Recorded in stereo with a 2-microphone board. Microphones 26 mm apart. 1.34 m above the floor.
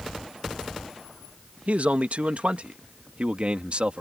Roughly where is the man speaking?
Right.